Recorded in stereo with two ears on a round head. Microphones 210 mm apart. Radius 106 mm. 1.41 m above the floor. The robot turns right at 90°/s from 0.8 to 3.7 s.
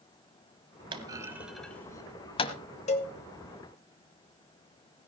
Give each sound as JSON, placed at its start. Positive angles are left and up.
{"t": 0.9, "sound": "a clunk", "side_deg": -20, "distance_m": 1.3}
{"t": 2.9, "sound": "a cowbell", "side_deg": 30, "distance_m": 1.5}